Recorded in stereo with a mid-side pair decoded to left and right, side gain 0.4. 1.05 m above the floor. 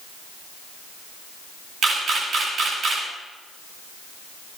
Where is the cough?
I don't hear a cough.